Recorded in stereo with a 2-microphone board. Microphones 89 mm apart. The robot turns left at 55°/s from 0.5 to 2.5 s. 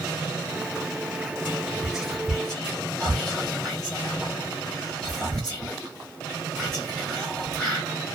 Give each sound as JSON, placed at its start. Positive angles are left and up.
{"t": 1.4, "sound": "whispering", "side_deg": -20, "distance_m": 1.4}